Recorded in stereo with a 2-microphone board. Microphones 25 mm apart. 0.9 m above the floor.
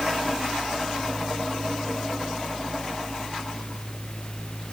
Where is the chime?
No chime in this recording.